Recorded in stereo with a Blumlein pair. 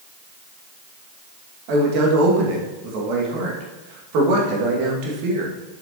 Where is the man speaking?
45° right, 2.5 m.